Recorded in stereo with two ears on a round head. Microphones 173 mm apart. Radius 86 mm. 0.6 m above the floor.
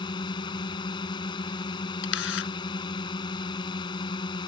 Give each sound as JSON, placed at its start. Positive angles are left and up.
{"t": 0.0, "sound": "a drone", "side_deg": 25}
{"t": 2.0, "sound": "a camera shutter", "side_deg": 70}